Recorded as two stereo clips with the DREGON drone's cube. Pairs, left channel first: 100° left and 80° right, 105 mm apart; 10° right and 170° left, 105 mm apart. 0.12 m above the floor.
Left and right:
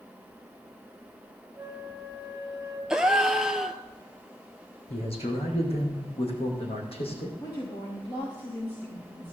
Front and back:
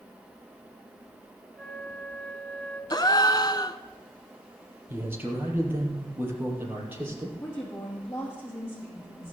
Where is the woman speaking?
55° left, 6.5 m.